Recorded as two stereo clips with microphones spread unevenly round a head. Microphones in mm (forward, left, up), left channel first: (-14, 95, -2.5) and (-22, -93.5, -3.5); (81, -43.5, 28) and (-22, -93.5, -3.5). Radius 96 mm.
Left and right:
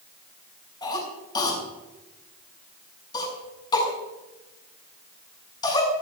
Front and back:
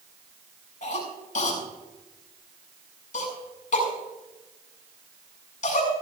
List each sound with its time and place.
0.8 s a cough: 15° left, 7 m